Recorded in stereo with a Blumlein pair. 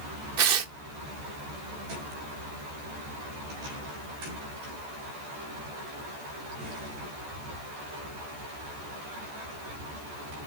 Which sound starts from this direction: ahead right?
Tearing paper, at 0.4 s.